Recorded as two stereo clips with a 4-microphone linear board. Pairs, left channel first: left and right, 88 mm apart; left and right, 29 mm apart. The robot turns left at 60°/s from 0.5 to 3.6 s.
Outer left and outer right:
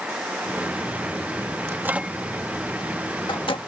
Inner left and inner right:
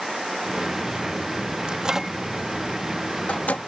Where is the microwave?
35° right (ahead or behind); by 3.6 s 80° left.